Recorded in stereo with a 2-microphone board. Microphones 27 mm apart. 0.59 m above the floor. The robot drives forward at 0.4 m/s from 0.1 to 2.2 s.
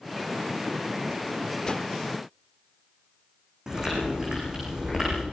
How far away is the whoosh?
About 0.6 m.